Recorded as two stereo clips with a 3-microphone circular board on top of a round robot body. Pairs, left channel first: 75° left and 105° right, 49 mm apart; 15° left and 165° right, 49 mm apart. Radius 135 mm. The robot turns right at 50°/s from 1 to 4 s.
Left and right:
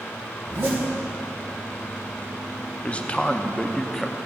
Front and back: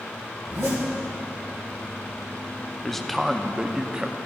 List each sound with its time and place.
0.4 s a zipper: 145° right, 2.5 m
2.8 s a man speaking: 90° left, 0.8 m; by 4.2 s 145° left, 0.8 m